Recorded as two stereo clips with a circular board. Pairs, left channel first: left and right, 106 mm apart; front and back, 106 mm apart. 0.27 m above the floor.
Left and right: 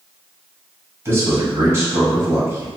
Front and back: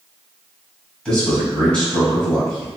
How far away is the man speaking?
About 1.6 m.